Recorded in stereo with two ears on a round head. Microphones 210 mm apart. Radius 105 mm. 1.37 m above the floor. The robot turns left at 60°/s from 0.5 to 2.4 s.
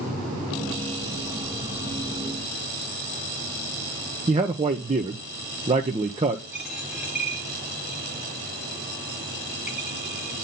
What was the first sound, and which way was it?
A man speaking, 25° right (ahead or behind).